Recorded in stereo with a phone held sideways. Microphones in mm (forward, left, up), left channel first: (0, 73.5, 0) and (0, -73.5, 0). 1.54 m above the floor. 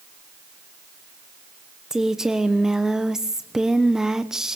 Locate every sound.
1.9 s a woman speaking: 5° right (ahead or behind), 1.0 m